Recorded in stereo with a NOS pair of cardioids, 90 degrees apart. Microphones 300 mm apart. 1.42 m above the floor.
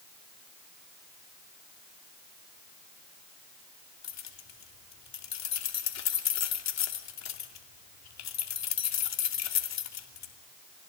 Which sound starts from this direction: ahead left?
Keys jangling, at 4.0 s.